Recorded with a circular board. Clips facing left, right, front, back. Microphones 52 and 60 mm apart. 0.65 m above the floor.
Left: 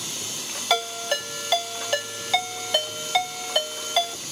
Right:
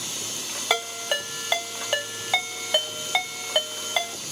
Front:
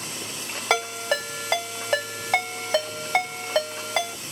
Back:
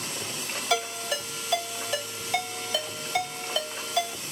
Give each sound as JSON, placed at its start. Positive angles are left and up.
{"t": 0.7, "sound": "a ringtone", "azimuth_deg": -15, "distance_m": 1.5}